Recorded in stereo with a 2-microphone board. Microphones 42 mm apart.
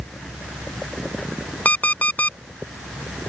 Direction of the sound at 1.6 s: 45° left (ahead or behind).